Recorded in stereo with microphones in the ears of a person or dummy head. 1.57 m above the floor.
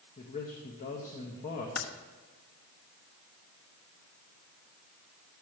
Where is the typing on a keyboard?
70° left (ahead or behind), 1.0 m.